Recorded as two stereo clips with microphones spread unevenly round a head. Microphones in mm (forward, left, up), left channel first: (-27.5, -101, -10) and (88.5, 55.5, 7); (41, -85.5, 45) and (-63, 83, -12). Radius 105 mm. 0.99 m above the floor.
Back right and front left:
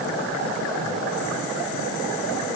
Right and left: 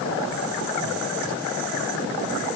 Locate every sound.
Only background noise.